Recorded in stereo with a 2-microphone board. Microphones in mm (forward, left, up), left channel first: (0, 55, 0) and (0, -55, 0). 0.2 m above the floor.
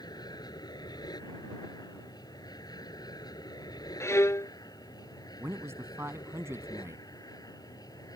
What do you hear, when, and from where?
0.0 s an aircraft: 35° left (ahead or behind)
4.0 s a violin: 25° left (ahead or behind)
5.4 s a man speaking: 25° right (ahead or behind)